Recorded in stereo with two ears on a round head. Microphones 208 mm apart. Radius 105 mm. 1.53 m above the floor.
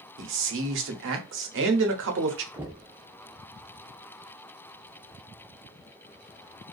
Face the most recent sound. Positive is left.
turn(degrees=-10)  # may be behind; listen again after turning